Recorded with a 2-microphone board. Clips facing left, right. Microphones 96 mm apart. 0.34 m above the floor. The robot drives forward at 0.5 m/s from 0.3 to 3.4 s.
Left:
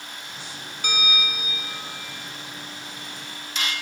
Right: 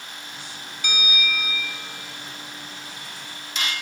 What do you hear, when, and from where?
0.8 s a bell: 50° left (ahead or behind), 1.3 m; by 1.9 s 40° left (ahead or behind), 1.6 m